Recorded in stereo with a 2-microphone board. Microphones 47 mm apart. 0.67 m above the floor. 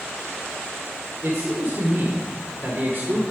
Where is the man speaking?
45° right (ahead or behind), 1.8 m.